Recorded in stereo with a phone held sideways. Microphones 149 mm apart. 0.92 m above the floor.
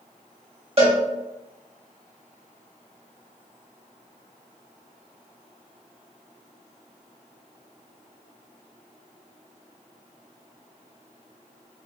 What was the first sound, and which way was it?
A cowbell, 40° right (ahead or behind).